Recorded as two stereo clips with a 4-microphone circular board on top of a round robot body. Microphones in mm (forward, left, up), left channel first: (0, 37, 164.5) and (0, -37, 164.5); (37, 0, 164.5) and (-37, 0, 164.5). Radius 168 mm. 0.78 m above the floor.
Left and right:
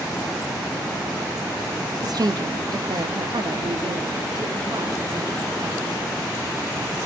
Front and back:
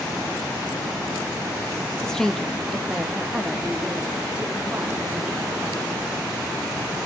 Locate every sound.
2.0 s a woman speaking: 80° right, 1.2 m; by 5.8 s 110° right, 4 m